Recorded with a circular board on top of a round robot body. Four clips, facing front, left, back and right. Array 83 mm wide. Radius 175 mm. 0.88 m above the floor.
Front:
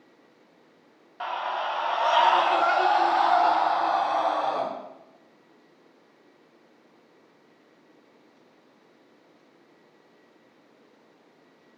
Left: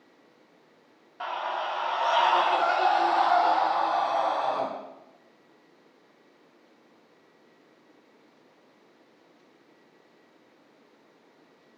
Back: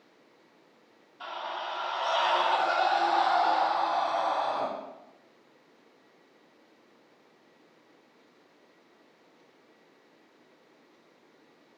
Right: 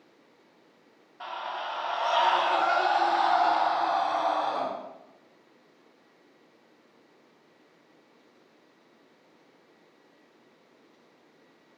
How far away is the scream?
About 1.9 m.